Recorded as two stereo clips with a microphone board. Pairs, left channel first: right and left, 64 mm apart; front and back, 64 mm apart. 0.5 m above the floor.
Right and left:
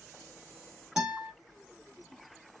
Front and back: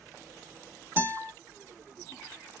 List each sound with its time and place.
1.0 s a guitar: 170° left, 1.1 m